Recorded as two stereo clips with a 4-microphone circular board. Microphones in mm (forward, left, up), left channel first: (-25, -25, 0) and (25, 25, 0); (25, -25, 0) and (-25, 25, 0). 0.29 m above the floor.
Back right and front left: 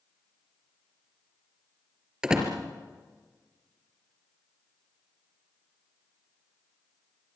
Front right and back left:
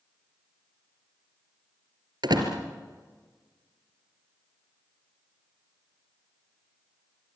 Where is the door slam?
125° left, 4 m.